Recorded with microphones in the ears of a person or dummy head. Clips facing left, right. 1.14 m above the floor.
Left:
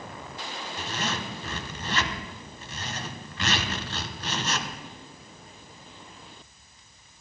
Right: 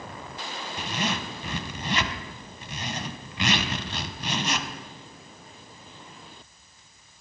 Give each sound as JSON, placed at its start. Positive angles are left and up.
{"t": 0.8, "sound": "a zipper", "side_deg": -15, "distance_m": 0.8}